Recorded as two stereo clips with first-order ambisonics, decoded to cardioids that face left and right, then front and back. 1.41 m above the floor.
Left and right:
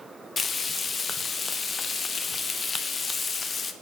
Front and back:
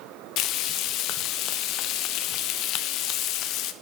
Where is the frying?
20° left, 0.5 m.